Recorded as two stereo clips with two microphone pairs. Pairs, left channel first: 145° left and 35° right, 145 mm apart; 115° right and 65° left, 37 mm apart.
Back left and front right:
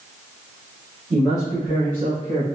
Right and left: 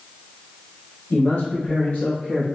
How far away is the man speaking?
About 1.5 m.